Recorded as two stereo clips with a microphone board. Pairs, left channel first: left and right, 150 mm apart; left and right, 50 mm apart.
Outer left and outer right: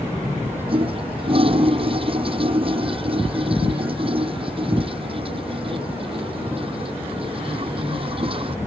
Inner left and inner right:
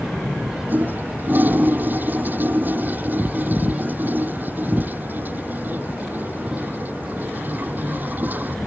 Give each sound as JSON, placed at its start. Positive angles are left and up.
{"t": 0.7, "sound": "a toilet flushing", "side_deg": -40}